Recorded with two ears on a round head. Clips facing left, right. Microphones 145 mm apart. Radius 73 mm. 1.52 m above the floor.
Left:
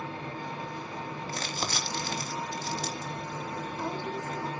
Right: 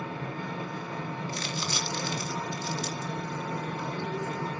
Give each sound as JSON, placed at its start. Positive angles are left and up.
{"t": 0.0, "sound": "an engine running", "side_deg": -50, "distance_m": 9.0}
{"t": 1.3, "sound": "crumpling", "side_deg": 40, "distance_m": 3.0}